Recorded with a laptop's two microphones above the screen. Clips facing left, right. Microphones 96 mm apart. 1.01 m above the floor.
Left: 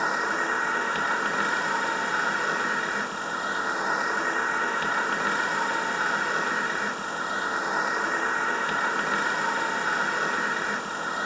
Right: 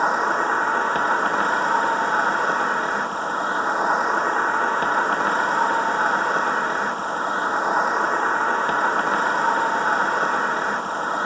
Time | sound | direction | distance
0.0 | an insect | 40° right (ahead or behind) | 0.9 m